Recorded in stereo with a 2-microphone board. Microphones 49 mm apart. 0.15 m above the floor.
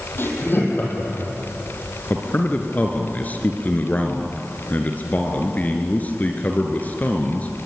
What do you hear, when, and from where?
0.2 s laughter: 50° left (ahead or behind), 5.5 m
2.1 s a man speaking: 35° left (ahead or behind), 2 m